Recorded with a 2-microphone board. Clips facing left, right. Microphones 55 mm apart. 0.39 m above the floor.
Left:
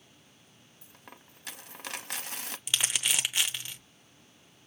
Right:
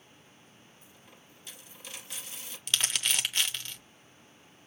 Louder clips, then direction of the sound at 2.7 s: Even; 10° left (ahead or behind).